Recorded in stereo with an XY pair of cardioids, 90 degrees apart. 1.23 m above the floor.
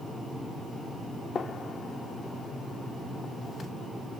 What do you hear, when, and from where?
1.4 s a gunshot: 55° left, 1.6 m